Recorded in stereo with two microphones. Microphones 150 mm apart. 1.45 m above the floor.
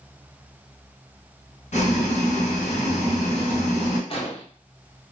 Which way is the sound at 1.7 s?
55° left (ahead or behind).